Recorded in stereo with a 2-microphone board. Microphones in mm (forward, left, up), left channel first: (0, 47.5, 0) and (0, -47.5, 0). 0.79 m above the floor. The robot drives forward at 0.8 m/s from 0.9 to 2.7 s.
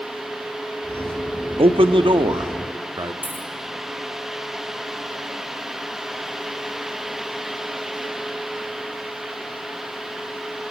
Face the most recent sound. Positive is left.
turn(degrees=-20)  # may be behind; listen again after turning